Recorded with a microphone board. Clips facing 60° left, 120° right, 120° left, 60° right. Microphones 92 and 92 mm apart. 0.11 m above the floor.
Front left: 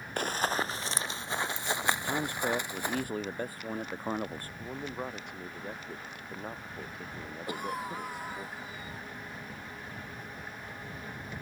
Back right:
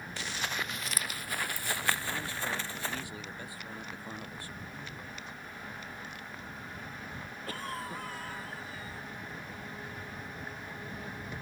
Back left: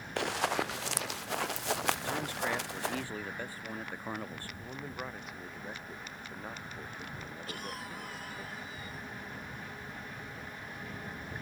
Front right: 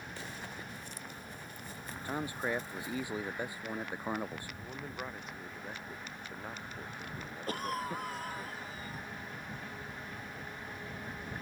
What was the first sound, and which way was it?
Running footsteps, 100° left.